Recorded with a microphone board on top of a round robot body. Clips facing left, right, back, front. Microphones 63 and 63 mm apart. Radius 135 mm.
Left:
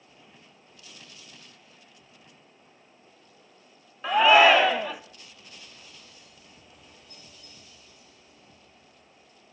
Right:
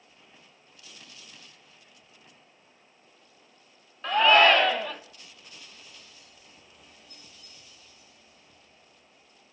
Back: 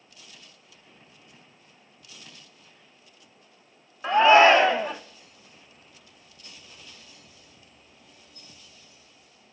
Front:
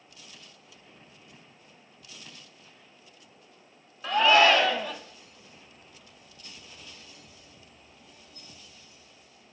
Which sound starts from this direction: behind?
A shout, at 4.0 s.